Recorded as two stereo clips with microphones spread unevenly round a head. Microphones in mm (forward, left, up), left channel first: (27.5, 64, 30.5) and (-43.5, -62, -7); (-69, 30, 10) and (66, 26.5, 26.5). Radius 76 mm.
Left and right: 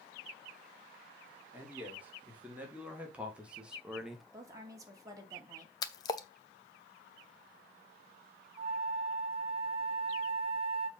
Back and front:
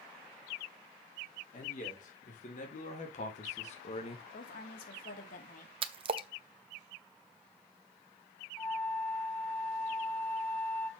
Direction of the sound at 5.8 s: 20° left.